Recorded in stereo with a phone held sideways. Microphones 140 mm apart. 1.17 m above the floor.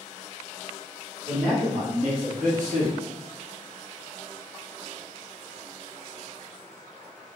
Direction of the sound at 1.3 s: 45° right (ahead or behind).